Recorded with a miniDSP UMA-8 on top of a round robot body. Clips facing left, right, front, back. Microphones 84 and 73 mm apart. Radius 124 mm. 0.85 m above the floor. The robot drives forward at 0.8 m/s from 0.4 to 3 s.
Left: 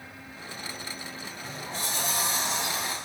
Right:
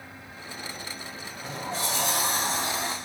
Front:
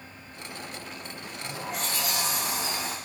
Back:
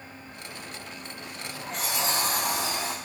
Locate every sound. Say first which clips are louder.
1.2 s a sliding door: right 7 dB, front 3 dB; 45° right, 0.6 m; by 2.9 s 155° right, 1.0 m